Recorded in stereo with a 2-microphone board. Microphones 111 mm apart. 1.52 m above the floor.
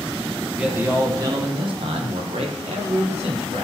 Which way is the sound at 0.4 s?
5° right (ahead or behind).